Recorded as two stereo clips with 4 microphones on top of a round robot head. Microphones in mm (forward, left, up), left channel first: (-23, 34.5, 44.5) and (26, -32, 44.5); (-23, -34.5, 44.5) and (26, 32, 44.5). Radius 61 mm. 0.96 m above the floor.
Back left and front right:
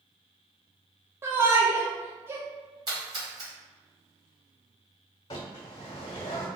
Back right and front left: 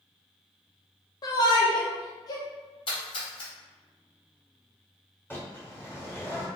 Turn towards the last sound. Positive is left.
turn(degrees=165)